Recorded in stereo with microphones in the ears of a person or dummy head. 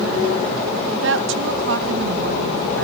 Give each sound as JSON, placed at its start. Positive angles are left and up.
{"t": 0.9, "sound": "a woman speaking", "side_deg": -75, "distance_m": 2.0}